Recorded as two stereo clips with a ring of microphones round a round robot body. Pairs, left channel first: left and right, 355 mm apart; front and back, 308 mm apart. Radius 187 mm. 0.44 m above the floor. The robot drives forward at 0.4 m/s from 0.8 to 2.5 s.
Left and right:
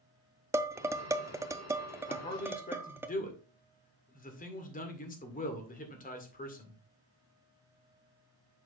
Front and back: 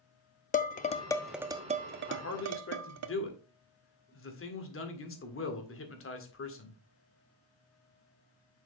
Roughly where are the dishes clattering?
Ahead.